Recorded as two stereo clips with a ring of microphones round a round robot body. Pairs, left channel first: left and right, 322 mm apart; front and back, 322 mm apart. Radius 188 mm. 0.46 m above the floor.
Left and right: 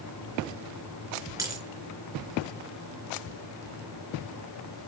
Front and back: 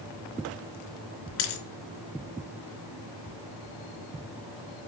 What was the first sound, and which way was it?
A dropped coin, 10° right.